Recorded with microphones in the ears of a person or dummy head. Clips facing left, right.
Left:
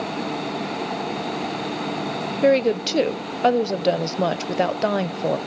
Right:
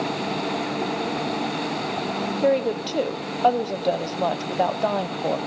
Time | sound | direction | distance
2.4 | a woman speaking | 30° left (ahead or behind) | 0.6 m